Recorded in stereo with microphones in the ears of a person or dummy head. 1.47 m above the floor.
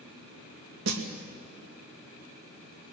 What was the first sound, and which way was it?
A snare drum, 75° right (ahead or behind).